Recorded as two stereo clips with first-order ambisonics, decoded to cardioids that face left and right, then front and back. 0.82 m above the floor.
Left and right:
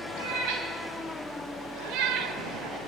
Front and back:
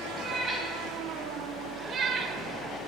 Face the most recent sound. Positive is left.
turn(degrees=-130)